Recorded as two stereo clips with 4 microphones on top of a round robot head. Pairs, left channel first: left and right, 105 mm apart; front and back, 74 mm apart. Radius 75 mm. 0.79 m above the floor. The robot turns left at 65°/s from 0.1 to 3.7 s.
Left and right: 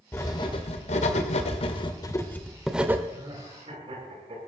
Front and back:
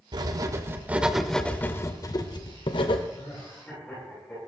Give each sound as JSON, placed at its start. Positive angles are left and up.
{"t": 0.1, "sound": "writing", "azimuth_deg": 165, "distance_m": 1.4}
{"t": 3.1, "sound": "laughter", "azimuth_deg": -35, "distance_m": 9.0}